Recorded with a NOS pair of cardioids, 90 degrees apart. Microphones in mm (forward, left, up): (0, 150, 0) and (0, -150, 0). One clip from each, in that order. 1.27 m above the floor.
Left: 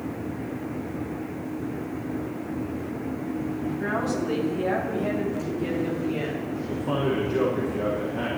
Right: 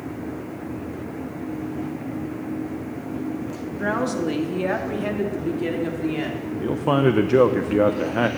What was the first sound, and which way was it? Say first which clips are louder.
A woman speaking: right 5 dB; 40° right.